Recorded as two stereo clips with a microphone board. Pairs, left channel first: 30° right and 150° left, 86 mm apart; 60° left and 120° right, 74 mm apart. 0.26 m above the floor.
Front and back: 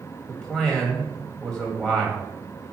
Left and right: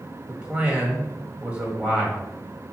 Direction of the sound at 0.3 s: 90° right.